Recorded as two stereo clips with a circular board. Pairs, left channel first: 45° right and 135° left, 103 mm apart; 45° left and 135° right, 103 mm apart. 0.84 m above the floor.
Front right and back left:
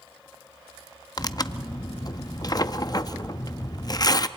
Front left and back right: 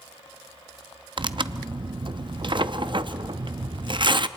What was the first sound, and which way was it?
Tearing paper, 95° right.